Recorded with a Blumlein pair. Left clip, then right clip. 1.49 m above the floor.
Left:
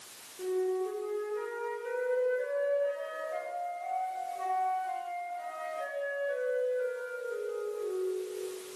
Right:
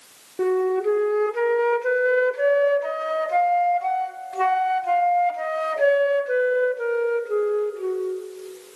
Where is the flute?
40° right, 0.8 m.